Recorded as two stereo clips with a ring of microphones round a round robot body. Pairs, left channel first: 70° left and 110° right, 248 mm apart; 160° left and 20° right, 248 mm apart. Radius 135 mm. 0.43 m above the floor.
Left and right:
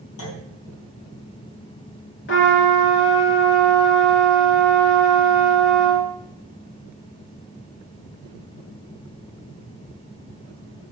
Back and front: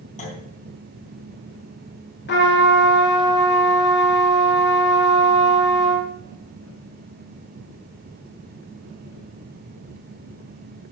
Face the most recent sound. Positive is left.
turn(degrees=110)